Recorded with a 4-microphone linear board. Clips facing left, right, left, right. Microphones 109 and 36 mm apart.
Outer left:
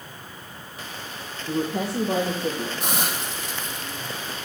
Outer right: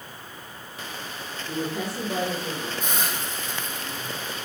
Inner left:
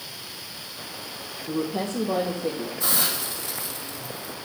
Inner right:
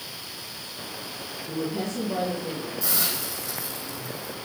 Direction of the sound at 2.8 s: 75° left (ahead or behind).